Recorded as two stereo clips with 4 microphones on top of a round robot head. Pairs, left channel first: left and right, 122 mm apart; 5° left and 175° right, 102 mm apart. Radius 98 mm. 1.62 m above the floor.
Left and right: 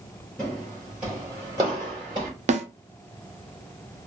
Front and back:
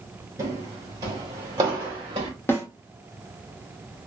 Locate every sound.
0.4 s footsteps: 170° left, 1.7 m; by 2.3 s 135° right, 2 m
2.5 s a snare drum: 70° right, 0.7 m